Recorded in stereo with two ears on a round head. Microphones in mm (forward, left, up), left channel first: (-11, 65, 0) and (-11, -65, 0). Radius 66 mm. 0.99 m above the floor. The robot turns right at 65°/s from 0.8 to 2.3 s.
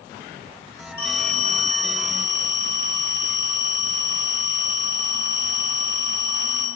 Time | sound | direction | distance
1.0 | a phone ringing | 165° left | 1.2 m